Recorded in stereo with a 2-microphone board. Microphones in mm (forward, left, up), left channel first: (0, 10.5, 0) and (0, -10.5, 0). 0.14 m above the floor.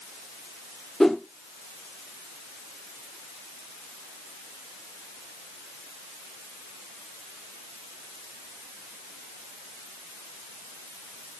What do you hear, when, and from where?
1.0 s a whoosh: 25° left (ahead or behind), 2.5 m